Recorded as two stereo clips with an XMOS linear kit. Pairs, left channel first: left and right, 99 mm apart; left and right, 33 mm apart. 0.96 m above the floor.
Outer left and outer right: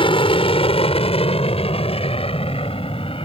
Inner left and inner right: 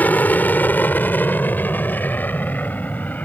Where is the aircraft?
60° left (ahead or behind).